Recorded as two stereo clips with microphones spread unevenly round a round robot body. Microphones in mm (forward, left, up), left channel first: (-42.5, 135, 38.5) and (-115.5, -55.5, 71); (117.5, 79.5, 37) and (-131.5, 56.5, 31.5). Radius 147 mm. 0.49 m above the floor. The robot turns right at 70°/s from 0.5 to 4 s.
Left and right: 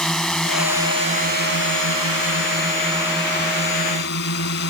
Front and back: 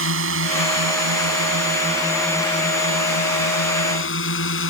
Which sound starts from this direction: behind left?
A drone, at 0.0 s.